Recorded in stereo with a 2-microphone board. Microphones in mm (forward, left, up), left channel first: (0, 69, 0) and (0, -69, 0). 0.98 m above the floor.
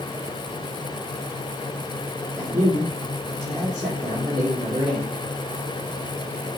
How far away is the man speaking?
About 0.9 m.